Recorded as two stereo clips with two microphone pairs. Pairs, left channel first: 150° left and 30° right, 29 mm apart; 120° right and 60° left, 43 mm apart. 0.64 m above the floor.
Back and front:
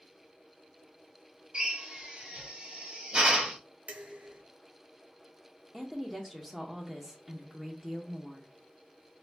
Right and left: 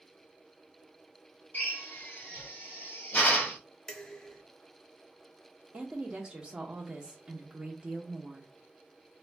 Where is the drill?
75° right, 1.9 m.